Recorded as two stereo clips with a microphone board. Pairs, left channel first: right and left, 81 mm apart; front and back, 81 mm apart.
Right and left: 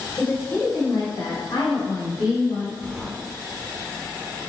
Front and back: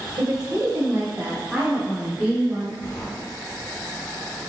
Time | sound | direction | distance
0.2 | a woman speaking | 150° right | 1.0 m
2.8 | a sliding door | straight ahead | 1.2 m